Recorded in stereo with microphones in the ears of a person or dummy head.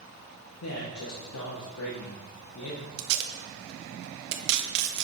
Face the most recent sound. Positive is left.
turn(degrees=-60)  # may be behind; listen again after turning